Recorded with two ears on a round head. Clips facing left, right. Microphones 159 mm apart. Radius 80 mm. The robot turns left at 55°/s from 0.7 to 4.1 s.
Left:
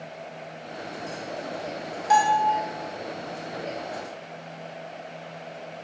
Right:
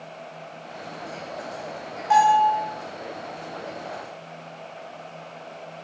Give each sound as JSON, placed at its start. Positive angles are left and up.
{"t": 2.1, "sound": "a bell", "side_deg": 50, "distance_m": 1.7}